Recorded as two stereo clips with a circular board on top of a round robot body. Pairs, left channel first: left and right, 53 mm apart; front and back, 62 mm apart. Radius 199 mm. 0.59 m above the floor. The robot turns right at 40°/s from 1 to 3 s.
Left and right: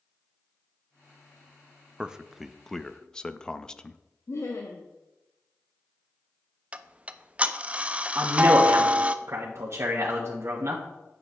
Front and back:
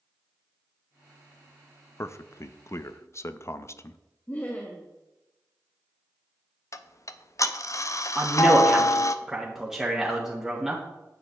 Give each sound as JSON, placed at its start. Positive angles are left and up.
{"t": 2.0, "sound": "a man speaking", "azimuth_deg": -20, "distance_m": 0.7}
{"t": 4.3, "sound": "laughter", "azimuth_deg": 65, "distance_m": 1.1}
{"t": 6.7, "sound": "ticking", "azimuth_deg": -25, "distance_m": 0.7}
{"t": 8.2, "sound": "a man speaking", "azimuth_deg": -100, "distance_m": 1.6}